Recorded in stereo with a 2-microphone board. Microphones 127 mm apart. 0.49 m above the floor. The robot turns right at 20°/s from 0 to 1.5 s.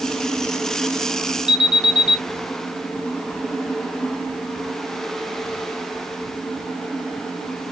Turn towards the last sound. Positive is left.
turn(degrees=-60)  # may be behind; listen again after turning